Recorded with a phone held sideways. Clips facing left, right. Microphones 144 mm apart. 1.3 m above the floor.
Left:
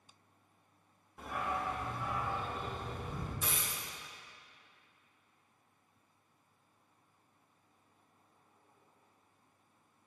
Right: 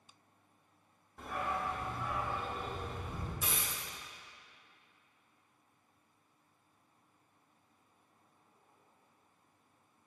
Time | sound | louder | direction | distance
1.2 | a dog barking | even | 5° left (ahead or behind) | 1.3 m
3.4 | a dropped coin | even | 5° right (ahead or behind) | 2.5 m